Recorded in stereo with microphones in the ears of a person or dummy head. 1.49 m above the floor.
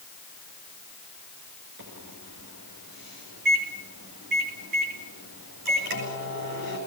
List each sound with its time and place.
1.8 s a microwave: 50° right (ahead or behind), 7.5 m